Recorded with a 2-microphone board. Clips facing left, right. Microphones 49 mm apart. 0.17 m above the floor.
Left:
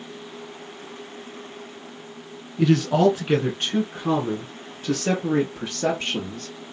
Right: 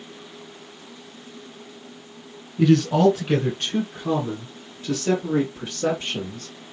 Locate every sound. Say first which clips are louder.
2.6 s a man speaking: right 1 dB; 5° left (ahead or behind), 1.8 m; by 6.5 s 60° left (ahead or behind), 3 m